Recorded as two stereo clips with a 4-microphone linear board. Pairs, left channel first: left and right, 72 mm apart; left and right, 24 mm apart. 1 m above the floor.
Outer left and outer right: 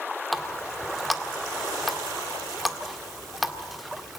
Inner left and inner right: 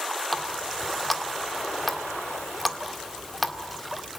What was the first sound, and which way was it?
A running tap, centre (ahead or behind).